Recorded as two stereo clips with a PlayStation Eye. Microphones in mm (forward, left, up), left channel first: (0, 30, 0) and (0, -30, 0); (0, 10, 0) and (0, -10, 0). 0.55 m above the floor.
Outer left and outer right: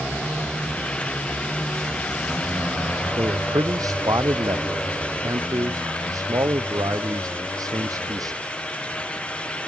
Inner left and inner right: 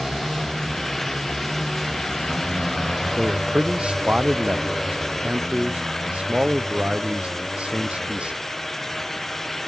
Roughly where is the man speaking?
Right.